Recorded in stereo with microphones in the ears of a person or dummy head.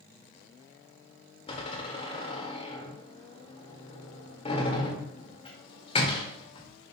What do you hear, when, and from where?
1.5 s a door slam: 35° left (ahead or behind), 1.9 m